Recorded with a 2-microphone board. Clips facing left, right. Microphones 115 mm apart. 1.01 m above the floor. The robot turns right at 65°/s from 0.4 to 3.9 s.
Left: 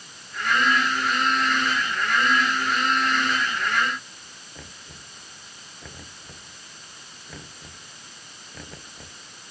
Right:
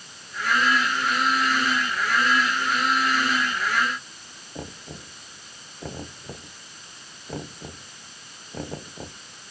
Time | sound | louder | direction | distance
4.5 | knocking | right 10 dB | 40° right (ahead or behind) | ?